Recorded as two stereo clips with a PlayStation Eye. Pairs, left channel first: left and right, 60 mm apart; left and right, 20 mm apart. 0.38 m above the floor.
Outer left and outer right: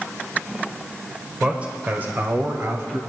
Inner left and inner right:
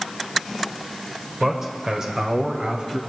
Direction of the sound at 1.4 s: 15° right (ahead or behind).